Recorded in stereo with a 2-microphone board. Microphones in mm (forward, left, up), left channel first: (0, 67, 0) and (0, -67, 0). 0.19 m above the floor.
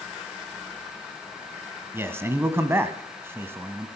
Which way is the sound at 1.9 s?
20° right (ahead or behind).